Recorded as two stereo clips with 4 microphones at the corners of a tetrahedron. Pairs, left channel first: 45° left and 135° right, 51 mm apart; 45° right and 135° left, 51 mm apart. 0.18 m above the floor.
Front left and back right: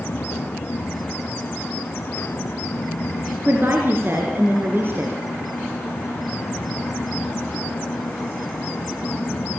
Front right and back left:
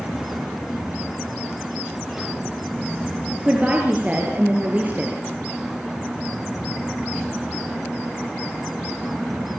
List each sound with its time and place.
3.4 s a woman speaking: 170° right, 3.5 m